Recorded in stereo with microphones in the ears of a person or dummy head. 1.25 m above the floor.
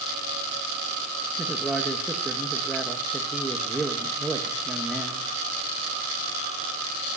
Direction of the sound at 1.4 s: 5° right (ahead or behind).